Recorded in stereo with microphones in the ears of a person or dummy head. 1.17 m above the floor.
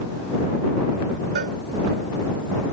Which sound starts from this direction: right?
A cowbell, at 1.4 s.